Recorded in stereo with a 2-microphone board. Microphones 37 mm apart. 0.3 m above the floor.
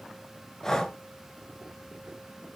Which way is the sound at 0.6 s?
15° left (ahead or behind).